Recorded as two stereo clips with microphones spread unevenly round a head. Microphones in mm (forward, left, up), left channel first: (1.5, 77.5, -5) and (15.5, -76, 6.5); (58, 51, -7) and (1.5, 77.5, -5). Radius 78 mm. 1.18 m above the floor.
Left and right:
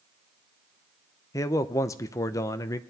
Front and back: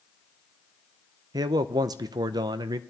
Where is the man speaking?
165° left, 0.5 m.